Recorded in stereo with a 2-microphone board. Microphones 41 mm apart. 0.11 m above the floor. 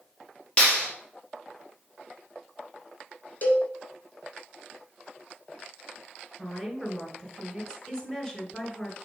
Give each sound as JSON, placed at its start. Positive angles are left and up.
{"t": 0.6, "sound": "a clap", "side_deg": 25, "distance_m": 2.5}
{"t": 3.4, "sound": "a cowbell", "side_deg": 45, "distance_m": 1.5}
{"t": 6.4, "sound": "a woman speaking", "side_deg": 15, "distance_m": 1.4}